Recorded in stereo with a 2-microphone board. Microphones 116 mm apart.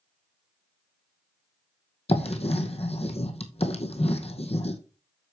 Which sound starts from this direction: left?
Writing, at 2.1 s.